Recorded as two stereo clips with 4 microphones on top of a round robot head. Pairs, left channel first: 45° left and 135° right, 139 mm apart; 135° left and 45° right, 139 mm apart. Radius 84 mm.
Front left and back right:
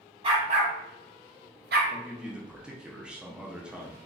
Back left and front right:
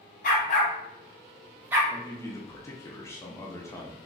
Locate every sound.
0.2 s a dog barking: 170° left, 0.9 m; by 1.8 s 115° right, 0.7 m
1.9 s a man speaking: 150° left, 0.6 m